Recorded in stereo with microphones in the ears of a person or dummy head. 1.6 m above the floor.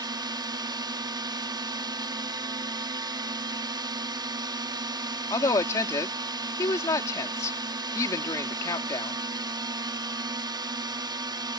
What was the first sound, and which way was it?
A drone, 15° right (ahead or behind).